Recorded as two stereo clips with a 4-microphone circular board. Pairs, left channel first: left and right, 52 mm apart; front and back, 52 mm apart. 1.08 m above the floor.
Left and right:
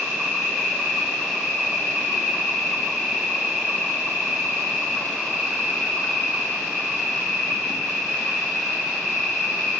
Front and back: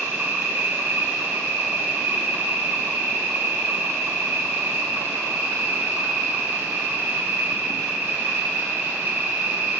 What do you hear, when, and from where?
0.0 s an insect: 175° right, 0.7 m